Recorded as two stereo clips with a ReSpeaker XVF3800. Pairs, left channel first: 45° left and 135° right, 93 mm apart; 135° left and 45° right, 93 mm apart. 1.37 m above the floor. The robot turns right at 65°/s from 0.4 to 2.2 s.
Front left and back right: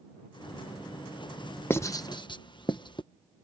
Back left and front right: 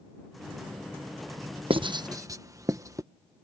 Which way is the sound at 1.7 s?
20° right.